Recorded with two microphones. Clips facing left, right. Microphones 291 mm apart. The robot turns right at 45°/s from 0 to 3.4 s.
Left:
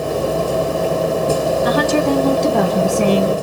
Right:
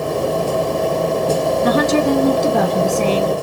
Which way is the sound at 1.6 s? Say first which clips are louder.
Right 2 dB; 45° right.